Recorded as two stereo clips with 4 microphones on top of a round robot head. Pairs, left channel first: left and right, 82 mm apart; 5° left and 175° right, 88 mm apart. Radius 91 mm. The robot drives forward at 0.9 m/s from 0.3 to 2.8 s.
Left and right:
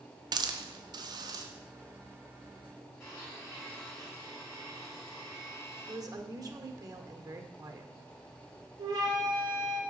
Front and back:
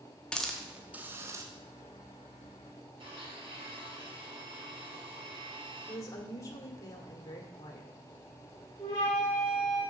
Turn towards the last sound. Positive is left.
turn(degrees=-65)